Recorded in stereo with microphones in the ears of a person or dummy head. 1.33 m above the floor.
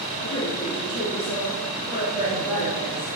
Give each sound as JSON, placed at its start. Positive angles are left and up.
{"t": 0.2, "sound": "a woman speaking", "side_deg": 25, "distance_m": 3.0}